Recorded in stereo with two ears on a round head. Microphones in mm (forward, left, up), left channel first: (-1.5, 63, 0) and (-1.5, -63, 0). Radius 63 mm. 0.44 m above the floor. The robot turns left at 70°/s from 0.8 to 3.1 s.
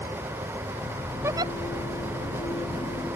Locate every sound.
1.2 s a giggle: 15° right (ahead or behind); by 1.5 s 40° right (ahead or behind)